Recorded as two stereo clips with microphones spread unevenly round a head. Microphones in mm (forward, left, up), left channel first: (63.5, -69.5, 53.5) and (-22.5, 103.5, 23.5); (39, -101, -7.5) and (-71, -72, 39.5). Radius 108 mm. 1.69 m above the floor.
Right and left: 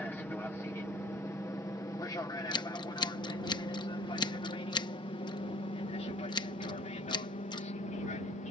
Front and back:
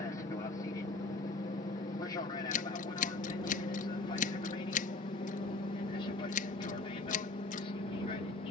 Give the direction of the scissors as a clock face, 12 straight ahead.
12 o'clock.